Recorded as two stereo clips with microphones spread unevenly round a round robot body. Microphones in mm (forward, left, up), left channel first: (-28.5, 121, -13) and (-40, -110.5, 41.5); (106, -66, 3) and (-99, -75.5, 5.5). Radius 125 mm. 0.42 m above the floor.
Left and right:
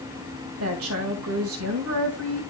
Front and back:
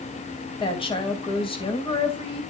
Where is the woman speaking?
60° right, 2 m.